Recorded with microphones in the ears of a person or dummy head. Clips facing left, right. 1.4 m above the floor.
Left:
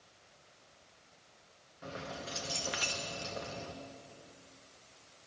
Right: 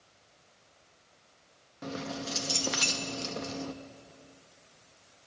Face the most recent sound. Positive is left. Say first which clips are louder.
# right 7 dB
turn(degrees=-60)  # may be behind; listen again after turning